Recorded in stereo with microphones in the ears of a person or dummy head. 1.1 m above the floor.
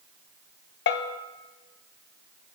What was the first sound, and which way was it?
A bell, 55° left (ahead or behind).